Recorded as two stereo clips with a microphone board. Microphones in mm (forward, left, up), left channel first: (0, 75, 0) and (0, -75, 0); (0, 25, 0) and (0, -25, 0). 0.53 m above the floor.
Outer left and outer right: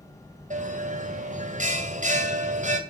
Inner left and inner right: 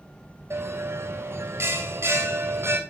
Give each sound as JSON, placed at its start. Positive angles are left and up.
{"t": 0.5, "sound": "a bell", "side_deg": -55, "distance_m": 2.5}